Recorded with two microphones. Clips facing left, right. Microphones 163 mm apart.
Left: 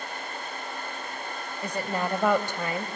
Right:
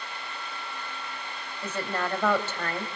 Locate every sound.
1.6 s a woman speaking: 15° left (ahead or behind), 2.5 m